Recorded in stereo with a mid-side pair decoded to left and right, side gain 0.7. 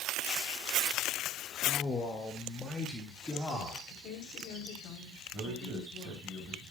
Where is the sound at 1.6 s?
25° left, 1.6 m; by 3.8 s 10° left, 3.5 m.